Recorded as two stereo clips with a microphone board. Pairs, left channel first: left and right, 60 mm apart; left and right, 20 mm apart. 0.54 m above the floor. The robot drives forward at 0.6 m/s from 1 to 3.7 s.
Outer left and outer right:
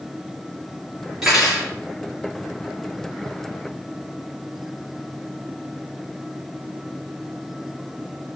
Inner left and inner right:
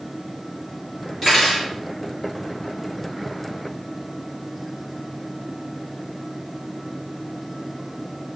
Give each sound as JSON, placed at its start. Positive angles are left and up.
{"t": 1.2, "sound": "cutlery clinking", "side_deg": -5, "distance_m": 5.0}